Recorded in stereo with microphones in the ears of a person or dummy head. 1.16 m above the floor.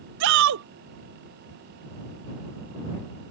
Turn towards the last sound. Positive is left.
turn(degrees=-70)  # may be behind; listen again after turning